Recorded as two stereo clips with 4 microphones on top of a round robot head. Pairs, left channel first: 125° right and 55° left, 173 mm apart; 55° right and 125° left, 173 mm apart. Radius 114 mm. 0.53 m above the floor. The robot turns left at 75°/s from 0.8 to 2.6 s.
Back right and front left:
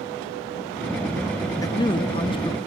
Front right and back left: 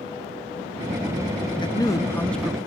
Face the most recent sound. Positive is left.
turn(degrees=-155)